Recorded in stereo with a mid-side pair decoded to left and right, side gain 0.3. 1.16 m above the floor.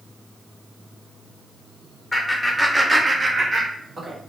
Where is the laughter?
25° left, 0.7 m; by 4.2 s 65° right, 1.5 m.